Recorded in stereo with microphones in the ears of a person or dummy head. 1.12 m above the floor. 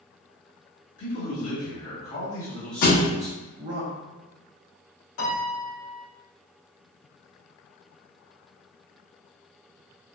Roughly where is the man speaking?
Left.